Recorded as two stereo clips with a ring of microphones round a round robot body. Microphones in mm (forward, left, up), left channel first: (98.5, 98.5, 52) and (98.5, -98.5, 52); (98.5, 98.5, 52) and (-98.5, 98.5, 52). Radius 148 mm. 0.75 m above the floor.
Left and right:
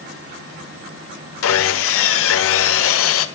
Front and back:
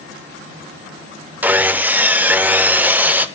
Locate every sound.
1.4 s sawing: 100° left, 0.7 m